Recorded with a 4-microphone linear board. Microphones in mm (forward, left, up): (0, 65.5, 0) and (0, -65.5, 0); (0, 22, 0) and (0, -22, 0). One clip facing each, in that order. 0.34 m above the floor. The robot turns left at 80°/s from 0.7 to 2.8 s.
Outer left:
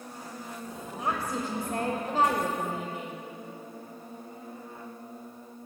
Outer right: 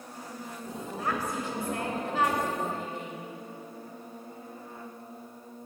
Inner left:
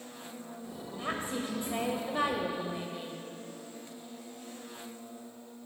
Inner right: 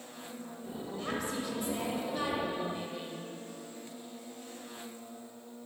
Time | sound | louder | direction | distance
1.0 | a woman speaking | outer left 1 dB, inner left 1 dB | 155° left | 1.1 m